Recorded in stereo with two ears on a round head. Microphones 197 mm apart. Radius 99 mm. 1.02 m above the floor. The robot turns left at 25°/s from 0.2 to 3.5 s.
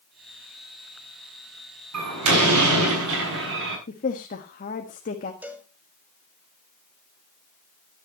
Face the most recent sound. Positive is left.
turn(degrees=-10)  # may be behind; listen again after turning